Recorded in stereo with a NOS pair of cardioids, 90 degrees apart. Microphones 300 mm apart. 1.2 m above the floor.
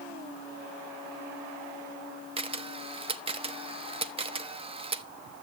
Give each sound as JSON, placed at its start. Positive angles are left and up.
{"t": 2.4, "sound": "a camera shutter", "azimuth_deg": -20, "distance_m": 0.8}